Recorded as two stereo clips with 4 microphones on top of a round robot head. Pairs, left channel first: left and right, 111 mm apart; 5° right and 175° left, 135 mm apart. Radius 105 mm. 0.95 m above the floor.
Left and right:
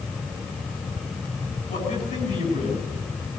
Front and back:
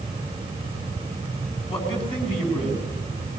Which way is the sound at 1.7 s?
45° left.